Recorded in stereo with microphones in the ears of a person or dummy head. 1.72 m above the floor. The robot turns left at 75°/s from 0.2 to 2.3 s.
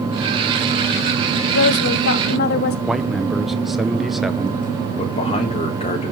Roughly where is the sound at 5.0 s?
Left.